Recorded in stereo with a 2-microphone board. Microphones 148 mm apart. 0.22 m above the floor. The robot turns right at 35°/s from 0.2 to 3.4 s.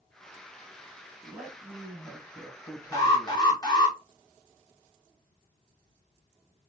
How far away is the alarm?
About 0.9 m.